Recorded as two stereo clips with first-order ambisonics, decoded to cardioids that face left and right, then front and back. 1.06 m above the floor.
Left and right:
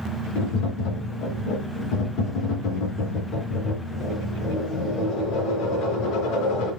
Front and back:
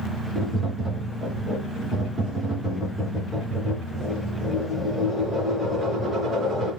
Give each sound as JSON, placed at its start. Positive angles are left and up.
{"t": 0.3, "sound": "tapping", "azimuth_deg": 90, "distance_m": 2.0}